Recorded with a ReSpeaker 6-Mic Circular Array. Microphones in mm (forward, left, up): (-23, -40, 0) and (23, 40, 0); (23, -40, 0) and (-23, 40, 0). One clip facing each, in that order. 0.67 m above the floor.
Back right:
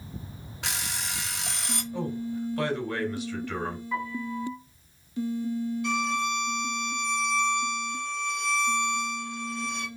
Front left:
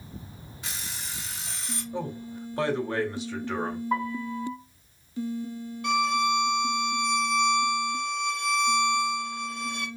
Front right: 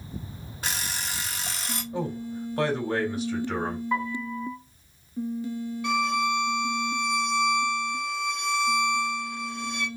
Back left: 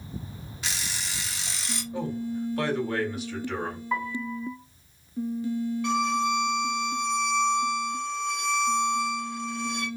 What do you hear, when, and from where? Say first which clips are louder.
0.6 s an alarm clock: back right 6 dB, front right 3 dB; 105° right, 0.8 m
1.9 s a man speaking: back right 3 dB, back left 2 dB; straight ahead, 2.5 m
3.9 s a piano: front left 3 dB, back left 2 dB; 30° left, 2.5 m
5.8 s a violin: front left 8 dB, front right 1 dB; 25° left, 2.5 m